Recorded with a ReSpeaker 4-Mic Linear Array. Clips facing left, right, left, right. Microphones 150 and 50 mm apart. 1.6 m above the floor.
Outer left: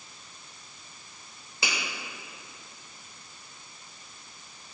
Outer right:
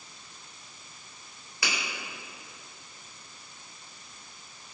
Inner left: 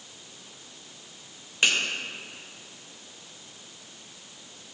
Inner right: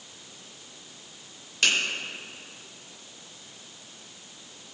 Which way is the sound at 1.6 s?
25° left (ahead or behind).